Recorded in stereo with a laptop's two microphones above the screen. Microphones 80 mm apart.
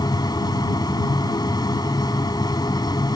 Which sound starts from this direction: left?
A machine running, at 0.0 s.